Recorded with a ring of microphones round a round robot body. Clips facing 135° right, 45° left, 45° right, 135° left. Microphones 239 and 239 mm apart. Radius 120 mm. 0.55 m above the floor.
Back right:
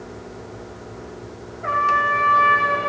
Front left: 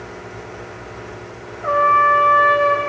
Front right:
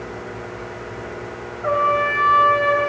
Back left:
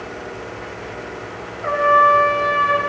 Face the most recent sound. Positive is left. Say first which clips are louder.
# front left 8 dB, back left 3 dB
turn(degrees=180)